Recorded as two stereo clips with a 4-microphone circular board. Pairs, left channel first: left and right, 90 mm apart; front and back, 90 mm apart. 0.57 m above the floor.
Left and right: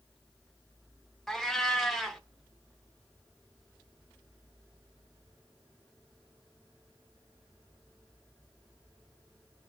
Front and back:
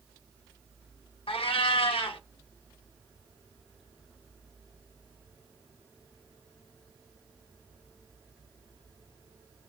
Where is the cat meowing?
Straight ahead, 0.7 m.